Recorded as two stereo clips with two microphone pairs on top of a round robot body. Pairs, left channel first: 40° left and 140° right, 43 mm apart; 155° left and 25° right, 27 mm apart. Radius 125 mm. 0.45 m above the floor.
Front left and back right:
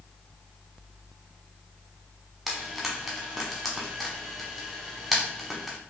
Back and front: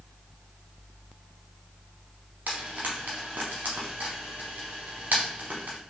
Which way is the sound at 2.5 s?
55° right.